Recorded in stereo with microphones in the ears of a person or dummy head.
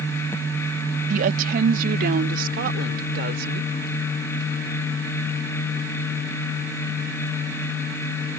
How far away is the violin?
No violin in this recording.